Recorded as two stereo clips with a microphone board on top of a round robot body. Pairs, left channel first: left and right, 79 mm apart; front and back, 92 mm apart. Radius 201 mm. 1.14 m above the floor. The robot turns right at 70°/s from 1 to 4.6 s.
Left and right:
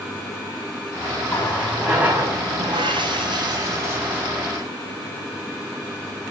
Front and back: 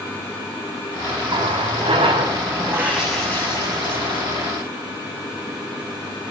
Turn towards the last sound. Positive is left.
turn(degrees=15)